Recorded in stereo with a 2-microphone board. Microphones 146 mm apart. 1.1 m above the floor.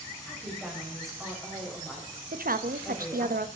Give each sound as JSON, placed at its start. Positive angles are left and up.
{"t": 0.2, "sound": "a woman speaking", "side_deg": 5, "distance_m": 4.5}
{"t": 2.3, "sound": "a woman speaking", "side_deg": -80, "distance_m": 1.1}